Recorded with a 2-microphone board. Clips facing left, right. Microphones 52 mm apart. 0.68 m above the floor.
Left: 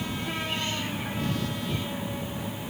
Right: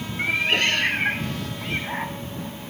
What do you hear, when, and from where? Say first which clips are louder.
0.2 s a cat meowing: right 14 dB; 75° right (ahead or behind); by 2.2 s 60° right (ahead or behind)